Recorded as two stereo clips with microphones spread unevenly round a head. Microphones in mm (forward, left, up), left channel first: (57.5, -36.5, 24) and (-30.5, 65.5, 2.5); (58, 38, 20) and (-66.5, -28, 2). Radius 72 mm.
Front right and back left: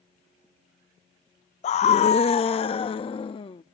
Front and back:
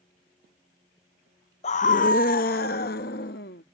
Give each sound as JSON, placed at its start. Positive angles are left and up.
{"t": 1.6, "sound": "a scream", "azimuth_deg": -15}